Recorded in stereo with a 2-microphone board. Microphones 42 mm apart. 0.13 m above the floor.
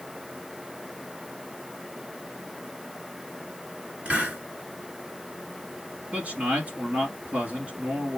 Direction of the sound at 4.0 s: 25° right (ahead or behind).